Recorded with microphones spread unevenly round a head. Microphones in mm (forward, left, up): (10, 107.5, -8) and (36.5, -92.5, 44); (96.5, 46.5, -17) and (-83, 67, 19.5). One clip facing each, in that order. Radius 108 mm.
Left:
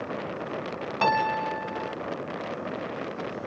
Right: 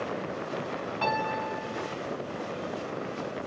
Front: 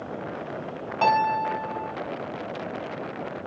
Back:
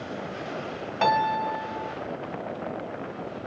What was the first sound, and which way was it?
A piano, 95° left.